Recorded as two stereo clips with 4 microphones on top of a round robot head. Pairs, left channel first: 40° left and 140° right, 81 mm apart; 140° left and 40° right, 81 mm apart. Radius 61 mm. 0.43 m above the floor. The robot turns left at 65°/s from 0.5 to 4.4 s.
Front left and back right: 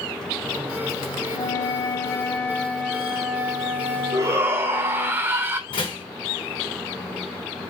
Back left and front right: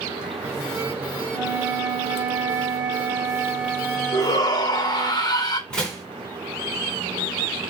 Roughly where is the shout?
Behind.